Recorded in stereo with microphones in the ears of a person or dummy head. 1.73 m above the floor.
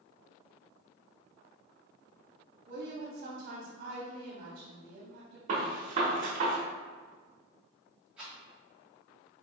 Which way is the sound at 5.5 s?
40° right (ahead or behind).